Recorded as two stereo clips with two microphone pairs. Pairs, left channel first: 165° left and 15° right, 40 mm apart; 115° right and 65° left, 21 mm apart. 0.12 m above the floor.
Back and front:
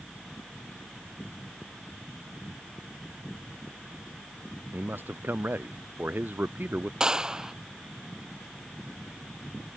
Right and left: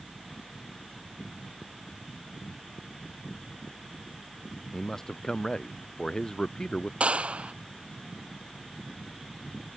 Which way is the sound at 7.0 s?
55° left.